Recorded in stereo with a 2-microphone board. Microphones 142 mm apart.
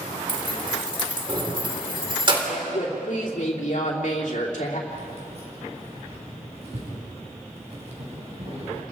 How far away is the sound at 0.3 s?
About 3 m.